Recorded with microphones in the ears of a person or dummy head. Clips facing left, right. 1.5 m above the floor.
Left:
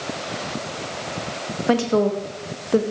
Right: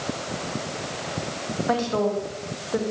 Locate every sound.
1.7 s a woman speaking: 40° left (ahead or behind), 2 m